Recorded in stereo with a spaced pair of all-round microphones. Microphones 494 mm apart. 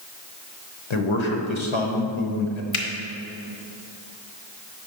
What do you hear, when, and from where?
0.9 s a man speaking: 70° left (ahead or behind), 0.9 m
2.7 s a finger snap: 80° left, 0.8 m